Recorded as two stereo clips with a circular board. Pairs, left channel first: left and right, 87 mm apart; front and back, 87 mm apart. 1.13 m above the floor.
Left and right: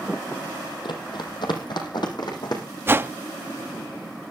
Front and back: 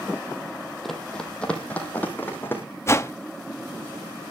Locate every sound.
0.8 s running footsteps: 90° left, 2.5 m; by 2.6 s 65° left, 4 m
2.9 s a whoosh: 40° right, 0.6 m